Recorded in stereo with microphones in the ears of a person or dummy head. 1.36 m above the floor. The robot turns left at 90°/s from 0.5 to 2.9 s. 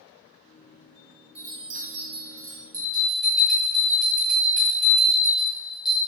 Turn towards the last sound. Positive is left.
turn(degrees=0)  # may be behind; listen again after turning